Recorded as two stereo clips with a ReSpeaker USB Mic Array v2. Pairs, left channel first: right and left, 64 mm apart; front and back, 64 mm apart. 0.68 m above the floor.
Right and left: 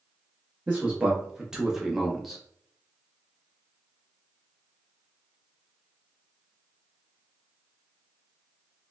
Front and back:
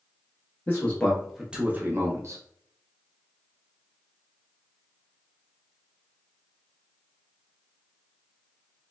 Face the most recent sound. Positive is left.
turn(degrees=175)